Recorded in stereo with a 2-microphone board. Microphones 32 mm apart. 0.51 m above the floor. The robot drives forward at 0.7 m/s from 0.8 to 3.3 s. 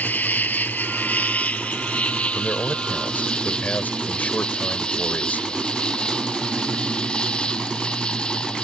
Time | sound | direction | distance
0.0 | an insect | 65° left (ahead or behind) | ?
2.4 | a man speaking | 60° left (ahead or behind) | ?